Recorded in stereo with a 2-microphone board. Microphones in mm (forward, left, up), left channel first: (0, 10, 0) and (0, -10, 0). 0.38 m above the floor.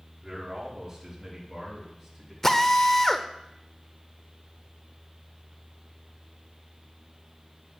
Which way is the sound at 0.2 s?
15° right (ahead or behind).